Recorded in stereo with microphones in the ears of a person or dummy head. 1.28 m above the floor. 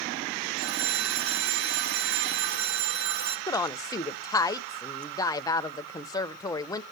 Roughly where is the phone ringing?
Right.